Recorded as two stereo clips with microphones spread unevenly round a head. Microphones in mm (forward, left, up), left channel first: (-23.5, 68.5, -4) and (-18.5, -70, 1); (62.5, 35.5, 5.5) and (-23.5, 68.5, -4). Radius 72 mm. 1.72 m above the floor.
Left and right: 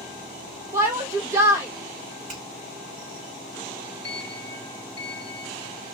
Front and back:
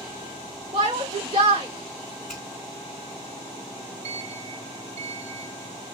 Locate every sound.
0.7 s a shout: 155° right, 0.6 m
2.3 s a finger snap: 105° right, 3 m
4.0 s a sliding door: 175° left, 1.7 m